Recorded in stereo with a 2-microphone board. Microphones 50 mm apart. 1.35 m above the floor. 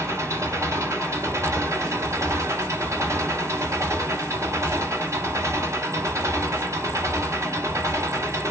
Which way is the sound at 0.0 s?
80° right.